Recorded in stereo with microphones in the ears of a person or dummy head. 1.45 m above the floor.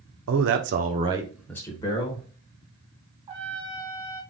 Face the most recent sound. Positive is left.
turn(degrees=-30)  # may be behind; listen again after turning